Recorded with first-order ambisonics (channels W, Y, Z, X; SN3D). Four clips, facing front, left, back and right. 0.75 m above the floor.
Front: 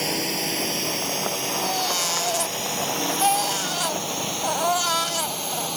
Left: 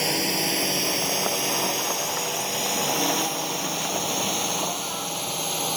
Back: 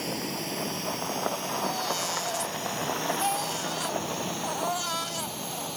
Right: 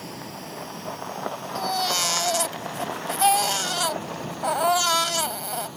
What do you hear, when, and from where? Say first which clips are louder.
0.0 s a drone: left 13 dB, front 7 dB; 60° left; by 5.8 s 65° left
1.6 s a baby crying: right 1 dB, front 5 dB; 60° right